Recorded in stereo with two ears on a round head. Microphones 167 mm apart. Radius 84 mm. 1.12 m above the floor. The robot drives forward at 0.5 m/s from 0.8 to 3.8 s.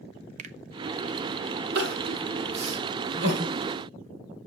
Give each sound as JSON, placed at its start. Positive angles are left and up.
{"t": 0.4, "sound": "a finger snap", "side_deg": -40, "distance_m": 0.8}
{"t": 1.8, "sound": "crying", "side_deg": -60, "distance_m": 2.5}